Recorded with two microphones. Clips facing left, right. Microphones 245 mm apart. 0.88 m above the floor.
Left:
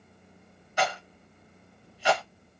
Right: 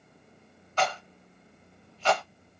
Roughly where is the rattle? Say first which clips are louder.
Even; centre.